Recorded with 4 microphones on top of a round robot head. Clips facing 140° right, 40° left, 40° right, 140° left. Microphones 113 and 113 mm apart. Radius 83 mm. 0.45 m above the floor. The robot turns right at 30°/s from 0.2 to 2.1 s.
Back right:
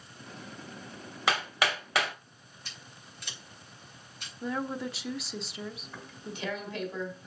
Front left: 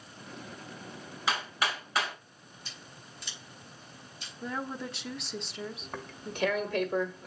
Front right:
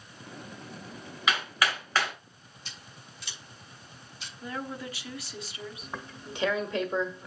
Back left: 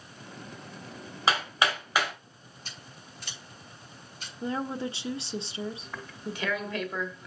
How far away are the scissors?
About 3.5 m.